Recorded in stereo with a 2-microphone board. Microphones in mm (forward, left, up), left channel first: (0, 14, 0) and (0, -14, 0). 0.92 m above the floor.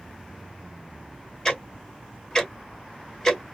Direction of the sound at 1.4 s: 15° left (ahead or behind).